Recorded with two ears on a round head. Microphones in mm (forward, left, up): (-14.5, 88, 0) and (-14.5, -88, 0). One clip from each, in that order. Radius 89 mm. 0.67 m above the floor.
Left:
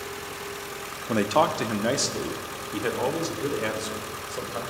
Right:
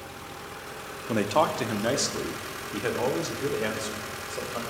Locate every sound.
1.1 s a man speaking: 5° left (ahead or behind), 0.8 m; by 4.6 s 5° right (ahead or behind), 2.5 m